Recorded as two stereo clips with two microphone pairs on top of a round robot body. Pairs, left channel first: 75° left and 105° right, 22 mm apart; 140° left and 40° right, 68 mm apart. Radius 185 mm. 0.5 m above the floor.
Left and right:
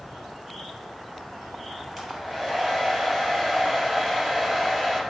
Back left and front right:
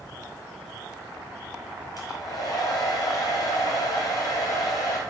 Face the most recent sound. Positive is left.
turn(degrees=170)